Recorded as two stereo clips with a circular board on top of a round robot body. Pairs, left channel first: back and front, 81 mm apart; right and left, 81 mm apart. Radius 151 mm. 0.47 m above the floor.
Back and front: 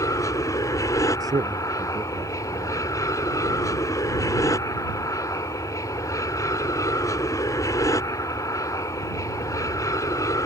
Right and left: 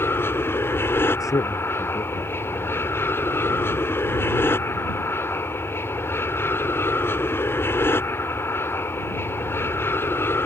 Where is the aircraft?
145° right.